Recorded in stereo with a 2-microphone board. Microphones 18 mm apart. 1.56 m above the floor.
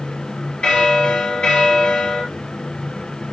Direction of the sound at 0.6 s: 80° left.